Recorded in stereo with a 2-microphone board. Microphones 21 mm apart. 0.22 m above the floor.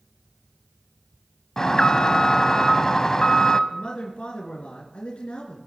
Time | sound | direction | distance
1.6 | an alarm | 30° left (ahead or behind) | 0.7 m
3.7 | a man speaking | 60° left (ahead or behind) | 3 m